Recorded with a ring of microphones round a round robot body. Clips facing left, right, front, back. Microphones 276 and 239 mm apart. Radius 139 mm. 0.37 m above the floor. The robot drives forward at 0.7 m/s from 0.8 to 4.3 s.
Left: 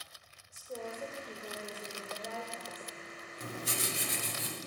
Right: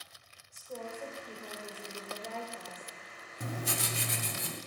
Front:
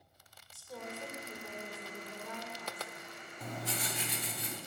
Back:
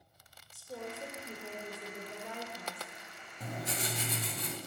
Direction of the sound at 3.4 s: 95° right.